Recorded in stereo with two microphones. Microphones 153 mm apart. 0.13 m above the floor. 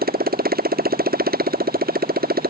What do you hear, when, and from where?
0.0 s a motorcycle: 85° right